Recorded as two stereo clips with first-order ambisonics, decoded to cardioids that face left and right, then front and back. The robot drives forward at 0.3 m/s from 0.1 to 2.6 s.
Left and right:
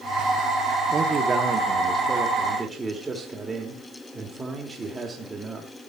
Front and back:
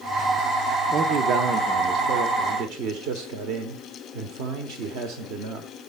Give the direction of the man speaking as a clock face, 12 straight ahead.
5 o'clock.